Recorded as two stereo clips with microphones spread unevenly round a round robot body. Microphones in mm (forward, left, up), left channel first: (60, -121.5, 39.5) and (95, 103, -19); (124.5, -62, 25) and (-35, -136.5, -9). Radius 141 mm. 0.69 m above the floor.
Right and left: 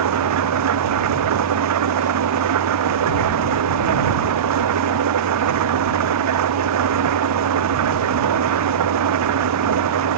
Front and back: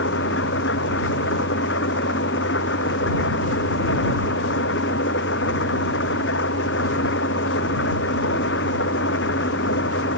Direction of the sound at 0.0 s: 80° left.